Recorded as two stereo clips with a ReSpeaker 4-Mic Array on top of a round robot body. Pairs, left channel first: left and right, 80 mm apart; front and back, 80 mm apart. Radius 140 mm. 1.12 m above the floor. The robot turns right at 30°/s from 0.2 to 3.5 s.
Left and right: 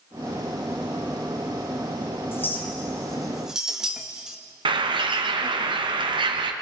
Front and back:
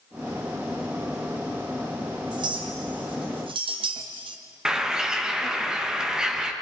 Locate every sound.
2.3 s a clink: 155° left, 1.1 m; by 4.4 s 170° right, 1.1 m
4.7 s a bird: 100° right, 1.3 m